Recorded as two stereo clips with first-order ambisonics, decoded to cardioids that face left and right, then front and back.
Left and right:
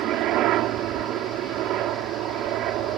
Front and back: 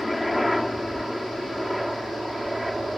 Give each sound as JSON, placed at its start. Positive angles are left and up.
{"t": 0.0, "sound": "a helicopter", "azimuth_deg": -85}